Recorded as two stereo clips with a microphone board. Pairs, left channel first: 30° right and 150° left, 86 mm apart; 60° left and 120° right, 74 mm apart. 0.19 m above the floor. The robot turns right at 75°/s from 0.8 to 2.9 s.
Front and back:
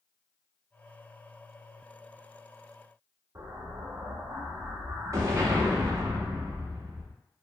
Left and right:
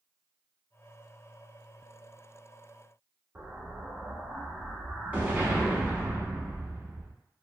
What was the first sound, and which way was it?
An explosion, straight behind.